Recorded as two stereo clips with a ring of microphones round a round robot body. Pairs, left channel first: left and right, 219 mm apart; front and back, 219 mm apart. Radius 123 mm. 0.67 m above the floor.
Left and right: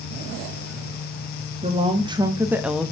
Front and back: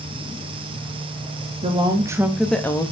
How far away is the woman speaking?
About 1.3 m.